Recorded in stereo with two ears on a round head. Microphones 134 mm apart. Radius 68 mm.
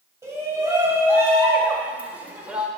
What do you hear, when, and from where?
0.2 s a shout: 20° right (ahead or behind), 2.5 m; by 2.7 s 5° right (ahead or behind), 1.4 m